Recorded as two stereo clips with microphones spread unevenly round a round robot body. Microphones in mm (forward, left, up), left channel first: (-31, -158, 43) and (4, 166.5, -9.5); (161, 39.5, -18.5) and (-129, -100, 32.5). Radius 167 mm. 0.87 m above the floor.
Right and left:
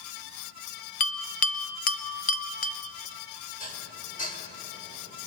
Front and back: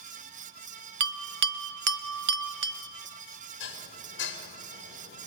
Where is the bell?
135° right, 0.8 m.